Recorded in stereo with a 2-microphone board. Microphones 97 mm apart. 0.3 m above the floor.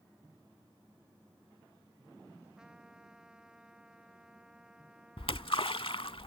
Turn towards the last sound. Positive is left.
turn(degrees=70)  # may be behind; listen again after turning